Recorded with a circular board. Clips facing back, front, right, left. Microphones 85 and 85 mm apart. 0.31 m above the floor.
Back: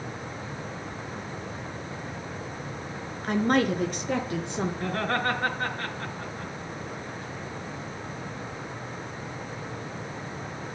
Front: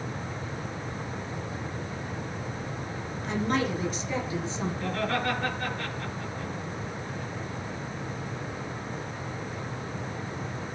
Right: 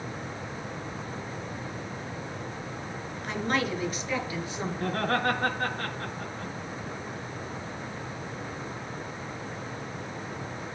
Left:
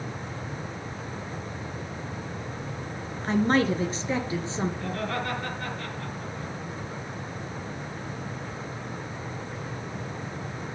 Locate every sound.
3.2 s a woman speaking: 145° left, 3.5 m; by 4.7 s 155° left, 4.5 m
4.8 s laughter: 130° right, 3.5 m